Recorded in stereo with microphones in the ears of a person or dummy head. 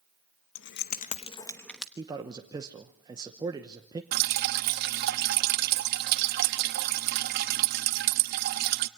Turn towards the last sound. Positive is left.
turn(degrees=-55)  # may be behind; listen again after turning